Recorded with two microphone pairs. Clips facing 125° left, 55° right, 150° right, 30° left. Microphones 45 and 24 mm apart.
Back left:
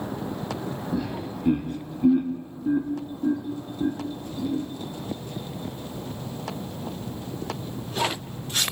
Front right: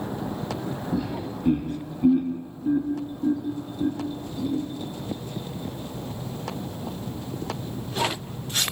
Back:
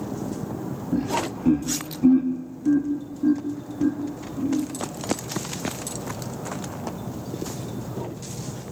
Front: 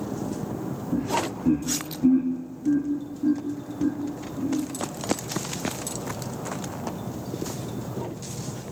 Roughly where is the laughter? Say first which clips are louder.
Front right 1 dB, back 1 dB; behind right.